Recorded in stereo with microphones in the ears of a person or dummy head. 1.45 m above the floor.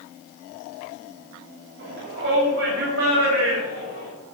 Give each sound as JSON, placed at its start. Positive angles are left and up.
{"t": 1.8, "sound": "a shout", "side_deg": -70, "distance_m": 8.0}